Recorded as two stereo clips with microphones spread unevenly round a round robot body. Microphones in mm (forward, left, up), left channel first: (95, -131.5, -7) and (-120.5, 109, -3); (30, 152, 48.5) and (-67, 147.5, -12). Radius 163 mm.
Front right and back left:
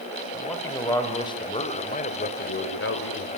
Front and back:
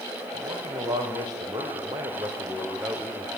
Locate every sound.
0.3 s a man speaking: 135° right, 4.5 m; by 3.3 s 95° right, 3 m